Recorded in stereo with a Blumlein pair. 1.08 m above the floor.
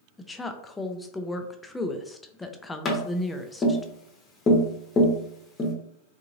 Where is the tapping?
20° left, 1.0 m.